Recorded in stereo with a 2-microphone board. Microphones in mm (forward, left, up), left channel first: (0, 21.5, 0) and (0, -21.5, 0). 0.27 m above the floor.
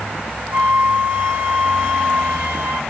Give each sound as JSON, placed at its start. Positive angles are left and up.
{"t": 0.5, "sound": "a flute", "side_deg": -60, "distance_m": 3.0}